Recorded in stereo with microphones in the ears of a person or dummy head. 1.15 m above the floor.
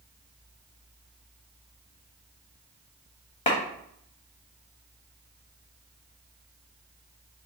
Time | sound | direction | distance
3.5 | a clap | 30° left (ahead or behind) | 0.8 m